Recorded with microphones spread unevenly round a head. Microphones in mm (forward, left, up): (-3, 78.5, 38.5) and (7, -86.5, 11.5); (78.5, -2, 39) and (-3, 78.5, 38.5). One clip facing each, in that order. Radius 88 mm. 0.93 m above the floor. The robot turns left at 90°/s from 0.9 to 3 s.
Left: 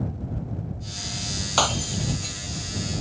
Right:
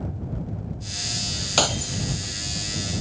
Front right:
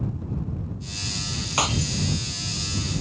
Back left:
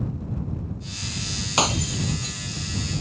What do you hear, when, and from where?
1.6 s breaking glass: 150° right; by 2.4 s 140° left